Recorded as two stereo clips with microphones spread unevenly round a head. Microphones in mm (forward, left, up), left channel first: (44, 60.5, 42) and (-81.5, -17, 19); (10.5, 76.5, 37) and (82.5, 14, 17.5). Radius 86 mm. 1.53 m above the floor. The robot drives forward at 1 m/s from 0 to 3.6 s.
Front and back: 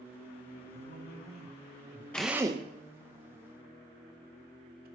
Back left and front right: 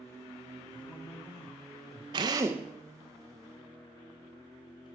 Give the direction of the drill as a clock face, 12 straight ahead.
1 o'clock.